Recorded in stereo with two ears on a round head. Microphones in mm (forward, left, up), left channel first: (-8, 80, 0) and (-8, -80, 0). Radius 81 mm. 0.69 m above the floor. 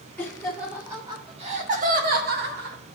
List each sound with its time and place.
0.2 s laughter: 5° left (ahead or behind), 1.9 m; by 2.8 s 65° right (ahead or behind), 2.5 m